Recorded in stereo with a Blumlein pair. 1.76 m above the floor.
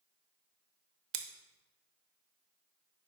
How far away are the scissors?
About 0.7 m.